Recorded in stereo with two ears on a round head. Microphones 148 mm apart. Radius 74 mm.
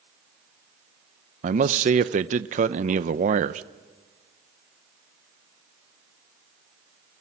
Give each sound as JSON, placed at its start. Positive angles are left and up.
{"t": 1.4, "sound": "a man speaking", "side_deg": -45, "distance_m": 0.7}